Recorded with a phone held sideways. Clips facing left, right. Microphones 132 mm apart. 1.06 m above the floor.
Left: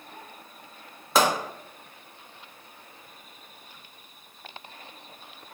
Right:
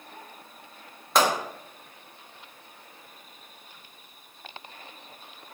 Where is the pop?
Centre (ahead or behind), 1.0 m.